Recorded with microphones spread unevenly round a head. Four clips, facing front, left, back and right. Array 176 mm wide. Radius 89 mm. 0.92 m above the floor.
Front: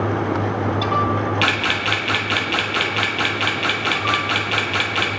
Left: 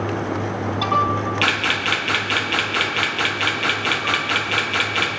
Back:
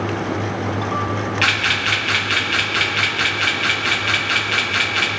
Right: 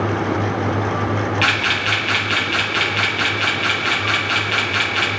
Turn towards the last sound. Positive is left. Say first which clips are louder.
# right 2 dB, even
turn(degrees=40)